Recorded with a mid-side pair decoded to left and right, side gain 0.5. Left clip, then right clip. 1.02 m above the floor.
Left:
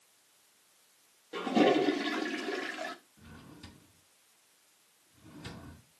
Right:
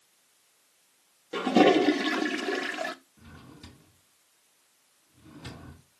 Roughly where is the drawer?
Ahead.